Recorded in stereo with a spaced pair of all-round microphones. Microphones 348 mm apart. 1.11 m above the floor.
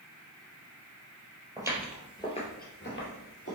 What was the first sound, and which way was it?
Footsteps, 10° right (ahead or behind).